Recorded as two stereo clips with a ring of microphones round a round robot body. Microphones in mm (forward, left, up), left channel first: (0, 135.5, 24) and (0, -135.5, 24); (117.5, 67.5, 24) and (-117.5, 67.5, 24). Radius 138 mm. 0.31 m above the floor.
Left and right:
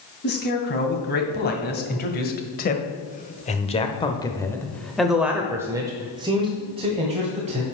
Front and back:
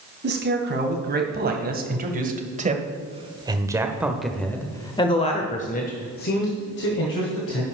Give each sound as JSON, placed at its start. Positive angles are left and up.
{"t": 0.2, "sound": "a man speaking", "azimuth_deg": 140, "distance_m": 2.5}